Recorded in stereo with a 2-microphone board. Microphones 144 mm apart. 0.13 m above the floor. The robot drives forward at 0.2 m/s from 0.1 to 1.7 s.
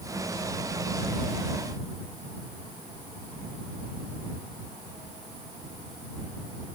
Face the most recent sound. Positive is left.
No sound to turn to.